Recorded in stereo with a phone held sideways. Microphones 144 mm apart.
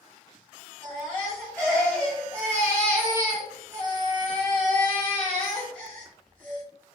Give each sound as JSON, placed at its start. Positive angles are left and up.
{"t": 0.8, "sound": "a baby crying", "side_deg": 10, "distance_m": 1.4}